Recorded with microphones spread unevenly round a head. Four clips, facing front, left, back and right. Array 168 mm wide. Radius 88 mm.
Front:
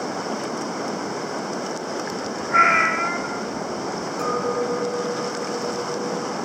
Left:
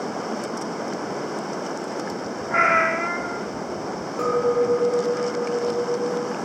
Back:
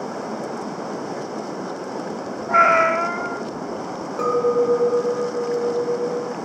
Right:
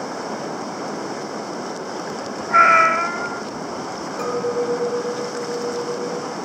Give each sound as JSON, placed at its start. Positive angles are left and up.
{"t": 2.5, "sound": "a cat meowing", "azimuth_deg": -170, "distance_m": 0.7}
{"t": 4.2, "sound": "a clink", "azimuth_deg": 160, "distance_m": 0.7}